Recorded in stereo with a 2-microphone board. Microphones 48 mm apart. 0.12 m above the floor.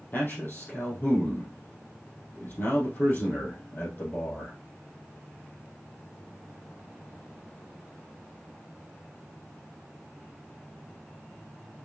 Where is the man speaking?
40° left (ahead or behind), 4 m.